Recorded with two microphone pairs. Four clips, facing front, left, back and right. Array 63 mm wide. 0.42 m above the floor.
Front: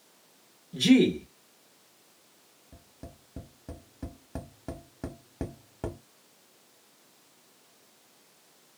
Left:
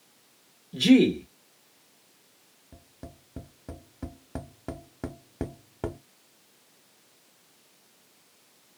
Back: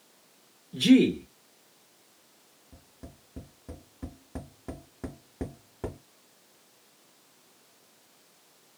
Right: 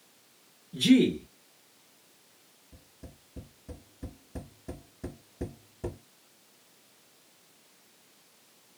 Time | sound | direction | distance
0.7 | a man speaking | 80° left | 0.9 m
2.7 | tapping | 75° left | 0.8 m